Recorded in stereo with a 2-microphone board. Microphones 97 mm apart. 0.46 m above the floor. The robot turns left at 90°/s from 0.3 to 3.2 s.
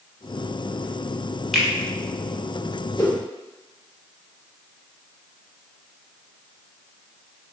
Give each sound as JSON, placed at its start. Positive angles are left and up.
{"t": 1.5, "sound": "a finger snap", "side_deg": 0, "distance_m": 0.8}
{"t": 3.0, "sound": "a whoosh", "side_deg": 30, "distance_m": 0.9}